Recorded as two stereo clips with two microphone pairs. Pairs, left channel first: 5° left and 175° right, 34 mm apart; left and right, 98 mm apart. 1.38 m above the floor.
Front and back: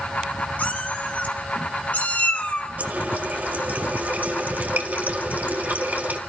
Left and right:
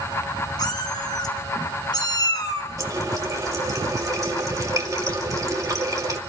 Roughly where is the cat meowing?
Ahead left.